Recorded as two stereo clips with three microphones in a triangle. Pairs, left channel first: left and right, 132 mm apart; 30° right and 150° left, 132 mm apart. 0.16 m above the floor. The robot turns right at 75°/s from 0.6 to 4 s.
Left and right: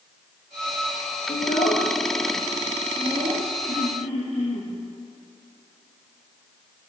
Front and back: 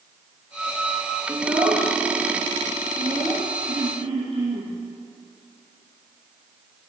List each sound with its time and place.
1.3 s a child speaking: 80° left, 3 m; by 3.5 s 115° right, 3 m
3.7 s throat clearing: 85° left, 6 m; by 4.7 s 110° left, 6 m